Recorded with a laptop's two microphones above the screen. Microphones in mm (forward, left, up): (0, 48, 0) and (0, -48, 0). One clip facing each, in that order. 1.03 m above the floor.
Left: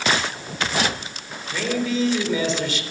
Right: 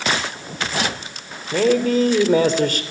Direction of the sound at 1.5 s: 55° right (ahead or behind).